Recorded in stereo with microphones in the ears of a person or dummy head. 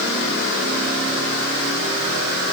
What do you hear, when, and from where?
Only background noise.